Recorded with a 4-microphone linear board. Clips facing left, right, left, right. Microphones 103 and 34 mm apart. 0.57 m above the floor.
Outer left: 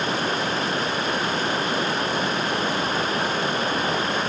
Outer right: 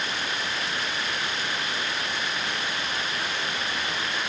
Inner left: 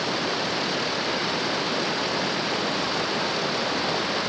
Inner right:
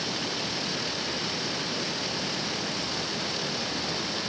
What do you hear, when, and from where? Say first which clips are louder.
0.0 s running water: outer left 7 dB, inner left 5 dB; 40° left (ahead or behind)